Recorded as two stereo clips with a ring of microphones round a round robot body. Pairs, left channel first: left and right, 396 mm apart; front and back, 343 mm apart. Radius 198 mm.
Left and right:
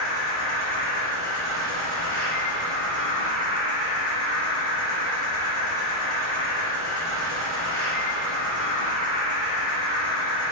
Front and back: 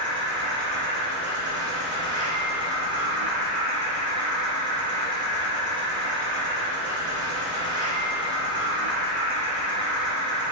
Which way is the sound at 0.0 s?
125° left.